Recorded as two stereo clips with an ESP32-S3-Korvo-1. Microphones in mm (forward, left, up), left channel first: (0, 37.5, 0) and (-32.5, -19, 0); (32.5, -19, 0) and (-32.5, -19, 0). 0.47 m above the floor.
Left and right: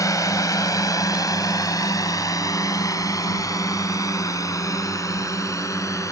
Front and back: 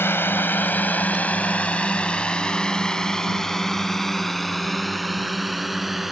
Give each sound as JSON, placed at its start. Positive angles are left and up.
{"t": 0.0, "sound": "a drone", "azimuth_deg": 45}